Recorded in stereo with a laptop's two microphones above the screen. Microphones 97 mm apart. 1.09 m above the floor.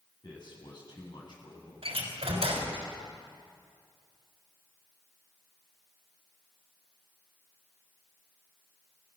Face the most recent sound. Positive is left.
turn(degrees=-80)